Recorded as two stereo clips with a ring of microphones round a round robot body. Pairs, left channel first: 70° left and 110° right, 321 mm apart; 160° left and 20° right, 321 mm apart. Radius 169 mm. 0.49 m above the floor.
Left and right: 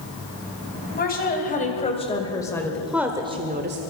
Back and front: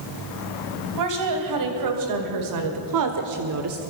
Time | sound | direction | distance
0.9 | a woman speaking | 5° left | 3 m